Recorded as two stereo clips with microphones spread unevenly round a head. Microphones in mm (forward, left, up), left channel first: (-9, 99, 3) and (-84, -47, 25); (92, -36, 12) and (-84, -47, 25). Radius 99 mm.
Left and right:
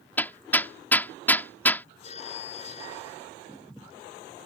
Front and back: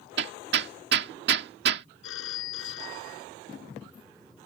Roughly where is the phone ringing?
Ahead.